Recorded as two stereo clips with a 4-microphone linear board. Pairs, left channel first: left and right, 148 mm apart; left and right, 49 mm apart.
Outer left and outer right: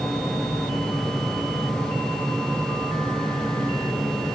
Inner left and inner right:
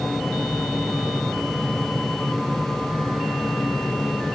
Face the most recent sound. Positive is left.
No sound to turn to.